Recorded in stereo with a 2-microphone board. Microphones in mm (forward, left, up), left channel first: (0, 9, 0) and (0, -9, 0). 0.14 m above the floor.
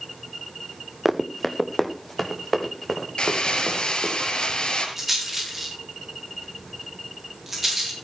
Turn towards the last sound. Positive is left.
turn(degrees=-10)  # may be behind; listen again after turning